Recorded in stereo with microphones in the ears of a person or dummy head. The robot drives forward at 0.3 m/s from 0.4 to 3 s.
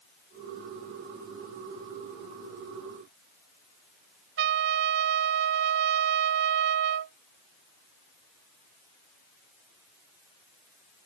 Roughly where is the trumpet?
Right.